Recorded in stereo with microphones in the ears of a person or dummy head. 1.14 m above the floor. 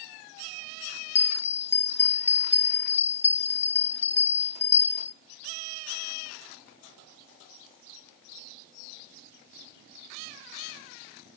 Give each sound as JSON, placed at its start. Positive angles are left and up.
{"t": 1.1, "sound": "a bell", "side_deg": 10, "distance_m": 0.5}